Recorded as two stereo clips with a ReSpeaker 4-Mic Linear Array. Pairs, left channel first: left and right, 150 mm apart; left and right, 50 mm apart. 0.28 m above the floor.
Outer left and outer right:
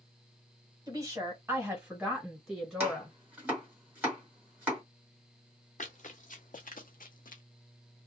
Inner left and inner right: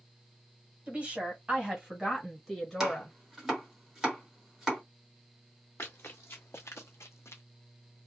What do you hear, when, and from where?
0.9 s a woman speaking: 25° right (ahead or behind), 1.6 m; by 3.1 s 10° left (ahead or behind), 1.7 m
2.8 s chopping: 10° right (ahead or behind), 2.0 m
5.8 s running footsteps: 55° left (ahead or behind), 1.2 m; by 7.4 s 65° left (ahead or behind), 0.5 m